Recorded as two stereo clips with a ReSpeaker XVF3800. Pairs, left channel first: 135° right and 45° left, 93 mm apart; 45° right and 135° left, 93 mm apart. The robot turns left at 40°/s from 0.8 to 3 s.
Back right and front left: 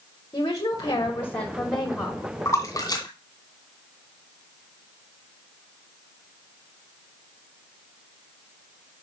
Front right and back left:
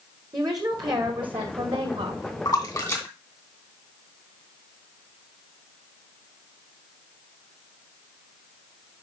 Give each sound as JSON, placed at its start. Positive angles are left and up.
{"t": 0.3, "sound": "a woman speaking", "azimuth_deg": 180, "distance_m": 1.4}
{"t": 2.5, "sound": "a splash", "azimuth_deg": -75, "distance_m": 2.5}